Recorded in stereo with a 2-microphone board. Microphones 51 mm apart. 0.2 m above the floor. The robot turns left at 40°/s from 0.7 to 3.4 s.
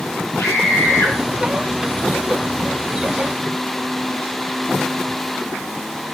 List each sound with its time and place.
0.4 s a scream: 65° left (ahead or behind), 5 m; by 1.1 s 50° left (ahead or behind), 5 m